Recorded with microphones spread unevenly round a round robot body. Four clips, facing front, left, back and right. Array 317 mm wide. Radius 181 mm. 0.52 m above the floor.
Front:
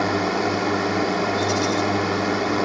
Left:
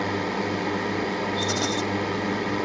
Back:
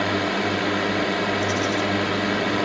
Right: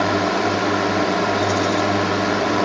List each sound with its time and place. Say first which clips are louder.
0.0 s a drone: right 8 dB, front 2 dB; 70° right
1.4 s a rattle: right 7 dB, front 2 dB; 55° left